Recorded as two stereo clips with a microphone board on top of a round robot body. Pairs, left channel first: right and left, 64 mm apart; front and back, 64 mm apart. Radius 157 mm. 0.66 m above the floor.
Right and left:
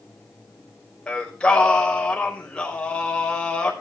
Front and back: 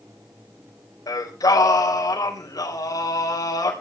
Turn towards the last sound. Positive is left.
turn(degrees=-15)